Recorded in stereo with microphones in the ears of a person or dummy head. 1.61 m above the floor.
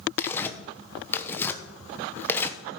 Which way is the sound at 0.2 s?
15° left (ahead or behind).